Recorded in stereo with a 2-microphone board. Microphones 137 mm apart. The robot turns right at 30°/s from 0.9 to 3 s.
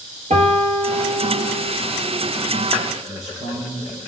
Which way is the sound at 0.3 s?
60° right (ahead or behind).